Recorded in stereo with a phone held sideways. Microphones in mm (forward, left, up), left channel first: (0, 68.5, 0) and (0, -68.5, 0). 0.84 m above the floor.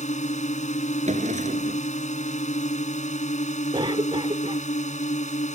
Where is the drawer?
60° right (ahead or behind).